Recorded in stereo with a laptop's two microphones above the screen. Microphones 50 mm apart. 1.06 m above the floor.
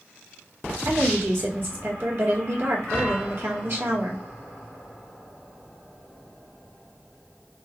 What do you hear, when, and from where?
0.8 s a woman speaking: 55° right (ahead or behind), 2 m